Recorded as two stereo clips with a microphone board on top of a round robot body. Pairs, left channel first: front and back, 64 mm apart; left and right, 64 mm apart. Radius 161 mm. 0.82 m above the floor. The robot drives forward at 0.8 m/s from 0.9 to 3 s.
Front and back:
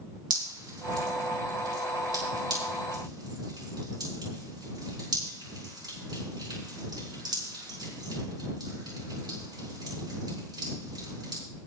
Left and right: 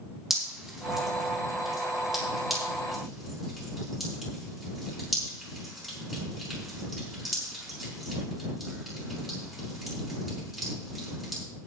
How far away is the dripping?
About 4 m.